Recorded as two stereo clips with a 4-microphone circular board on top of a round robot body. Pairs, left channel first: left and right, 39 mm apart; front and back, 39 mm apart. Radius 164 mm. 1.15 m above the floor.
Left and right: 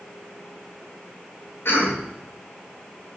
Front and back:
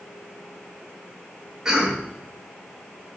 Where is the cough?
105° left, 5.5 m.